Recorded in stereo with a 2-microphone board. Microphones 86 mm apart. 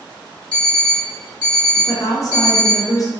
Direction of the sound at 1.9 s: 40° left (ahead or behind).